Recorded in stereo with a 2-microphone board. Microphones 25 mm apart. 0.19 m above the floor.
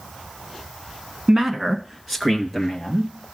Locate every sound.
1.3 s a man speaking: 20° right (ahead or behind), 1.5 m; by 3.1 s 5° left (ahead or behind), 3.5 m